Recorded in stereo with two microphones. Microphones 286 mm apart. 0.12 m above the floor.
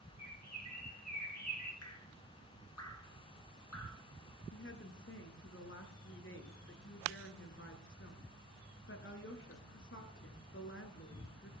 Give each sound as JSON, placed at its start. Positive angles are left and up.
{"t": 0.2, "sound": "a bird", "side_deg": 65, "distance_m": 4.0}
{"t": 1.8, "sound": "dripping", "side_deg": 60, "distance_m": 1.5}
{"t": 4.5, "sound": "a woman speaking", "side_deg": 45, "distance_m": 1.7}